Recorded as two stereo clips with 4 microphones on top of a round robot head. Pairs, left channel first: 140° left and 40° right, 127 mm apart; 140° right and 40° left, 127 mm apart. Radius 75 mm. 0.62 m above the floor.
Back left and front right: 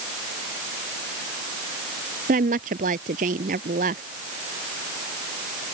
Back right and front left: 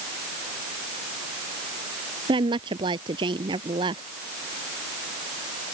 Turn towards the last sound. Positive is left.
turn(degrees=-15)